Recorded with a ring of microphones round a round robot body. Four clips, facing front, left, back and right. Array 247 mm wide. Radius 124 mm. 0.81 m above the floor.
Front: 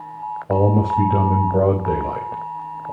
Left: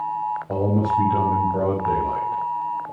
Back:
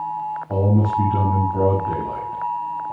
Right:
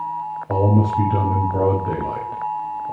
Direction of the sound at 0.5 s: 15° right.